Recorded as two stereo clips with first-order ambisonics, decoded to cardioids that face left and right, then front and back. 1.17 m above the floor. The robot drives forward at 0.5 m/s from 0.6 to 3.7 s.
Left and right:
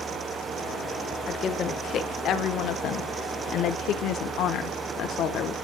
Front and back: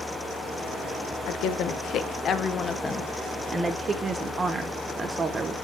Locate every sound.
1.3 s a woman speaking: 30° left, 1.3 m; by 5.5 s 115° left, 0.9 m